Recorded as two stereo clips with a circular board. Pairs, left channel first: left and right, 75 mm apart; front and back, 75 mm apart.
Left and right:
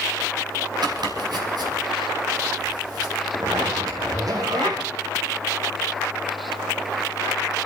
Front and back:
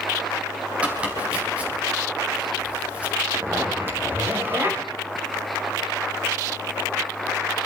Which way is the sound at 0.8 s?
110° right.